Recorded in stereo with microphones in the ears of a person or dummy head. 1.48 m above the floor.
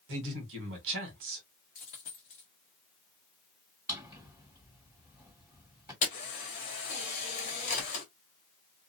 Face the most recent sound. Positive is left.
turn(degrees=40)  # may be behind; listen again after turning